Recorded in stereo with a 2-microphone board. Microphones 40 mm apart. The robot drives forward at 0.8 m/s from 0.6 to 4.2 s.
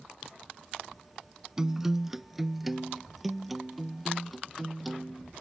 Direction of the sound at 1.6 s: 15° right (ahead or behind).